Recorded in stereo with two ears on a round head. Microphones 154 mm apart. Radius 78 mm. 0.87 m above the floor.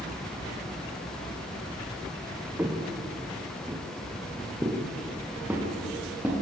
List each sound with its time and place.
2.6 s footsteps: 10° right (ahead or behind), 3.5 m